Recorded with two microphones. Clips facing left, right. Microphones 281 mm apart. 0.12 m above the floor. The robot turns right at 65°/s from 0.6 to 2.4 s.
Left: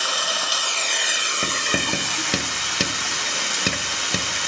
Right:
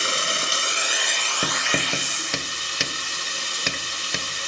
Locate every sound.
0.0 s running water: 30° right, 1.0 m; by 4.5 s 90° left, 1.0 m
1.4 s writing: 10° right (ahead or behind), 0.7 m; by 4.5 s 45° left (ahead or behind), 0.7 m